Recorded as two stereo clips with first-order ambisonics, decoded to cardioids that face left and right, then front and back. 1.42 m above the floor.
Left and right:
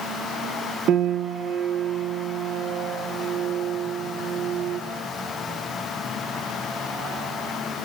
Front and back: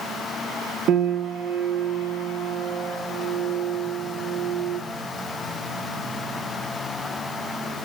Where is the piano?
135° right, 1.0 m.